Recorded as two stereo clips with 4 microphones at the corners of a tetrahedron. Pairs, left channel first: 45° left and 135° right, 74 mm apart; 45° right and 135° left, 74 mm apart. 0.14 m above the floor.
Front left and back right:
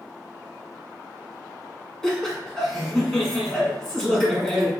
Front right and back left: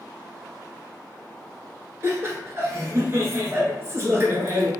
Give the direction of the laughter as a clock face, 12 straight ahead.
8 o'clock.